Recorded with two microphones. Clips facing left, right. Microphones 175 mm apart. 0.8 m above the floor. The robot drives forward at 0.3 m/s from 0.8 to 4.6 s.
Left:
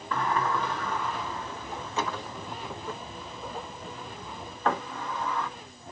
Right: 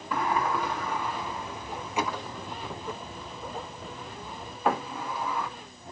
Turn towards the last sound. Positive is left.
turn(degrees=-10)  # may be behind; listen again after turning